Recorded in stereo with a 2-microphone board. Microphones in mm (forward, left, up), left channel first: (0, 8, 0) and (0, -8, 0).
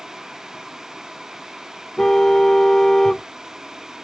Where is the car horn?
35° left (ahead or behind).